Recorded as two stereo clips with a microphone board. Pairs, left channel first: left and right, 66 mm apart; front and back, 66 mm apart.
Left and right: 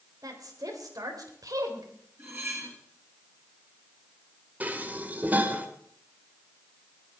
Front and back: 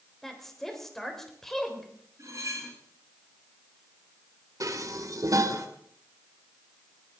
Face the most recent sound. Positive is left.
turn(degrees=-150)